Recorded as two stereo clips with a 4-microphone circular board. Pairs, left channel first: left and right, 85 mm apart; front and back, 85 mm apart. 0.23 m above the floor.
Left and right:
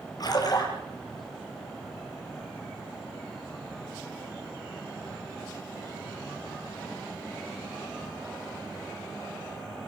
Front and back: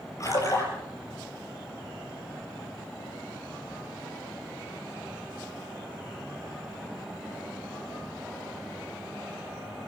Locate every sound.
0.2 s a splash: 50° left, 6.5 m